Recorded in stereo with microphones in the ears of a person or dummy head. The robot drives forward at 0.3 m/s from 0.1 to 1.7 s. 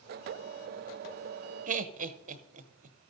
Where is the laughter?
40° right (ahead or behind), 0.6 m.